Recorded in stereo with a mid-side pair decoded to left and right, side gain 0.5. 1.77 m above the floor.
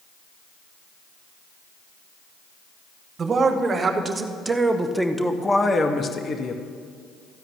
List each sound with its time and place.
3.2 s a man speaking: 40° right, 1.8 m; by 6.6 s 55° left, 1.3 m